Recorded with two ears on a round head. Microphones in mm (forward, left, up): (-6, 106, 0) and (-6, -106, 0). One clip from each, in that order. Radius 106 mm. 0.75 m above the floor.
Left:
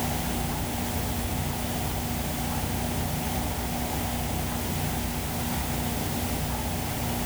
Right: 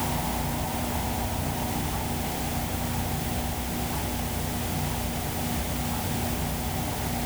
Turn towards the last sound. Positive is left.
No sound to turn to.